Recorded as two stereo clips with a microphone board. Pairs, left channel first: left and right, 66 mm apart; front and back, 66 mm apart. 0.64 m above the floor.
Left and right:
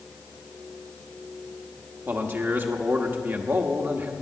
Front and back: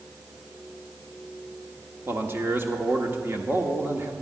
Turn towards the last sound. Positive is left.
turn(degrees=-135)